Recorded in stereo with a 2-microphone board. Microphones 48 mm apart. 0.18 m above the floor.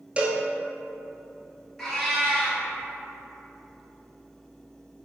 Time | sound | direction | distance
0.2 | a cowbell | 25° right (ahead or behind) | 0.8 m
1.8 | a cat meowing | 10° left (ahead or behind) | 1.2 m